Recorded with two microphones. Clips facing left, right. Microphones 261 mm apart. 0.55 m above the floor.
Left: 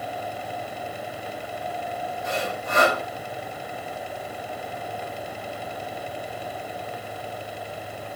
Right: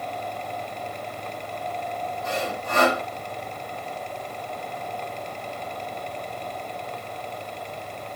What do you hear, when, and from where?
2.2 s sawing: 15° left (ahead or behind), 2.5 m